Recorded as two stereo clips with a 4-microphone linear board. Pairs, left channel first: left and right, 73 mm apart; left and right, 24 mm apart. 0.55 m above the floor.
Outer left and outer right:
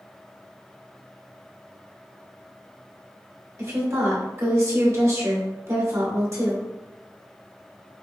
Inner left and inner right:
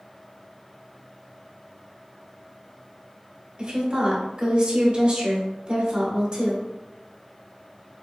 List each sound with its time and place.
3.6 s a woman speaking: 40° right (ahead or behind), 1.1 m